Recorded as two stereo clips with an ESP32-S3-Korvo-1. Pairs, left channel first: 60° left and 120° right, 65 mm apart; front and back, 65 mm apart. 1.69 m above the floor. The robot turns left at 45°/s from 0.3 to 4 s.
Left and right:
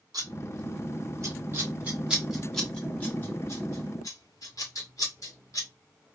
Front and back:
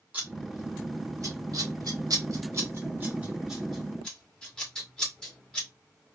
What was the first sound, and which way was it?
Scissors, 115° right.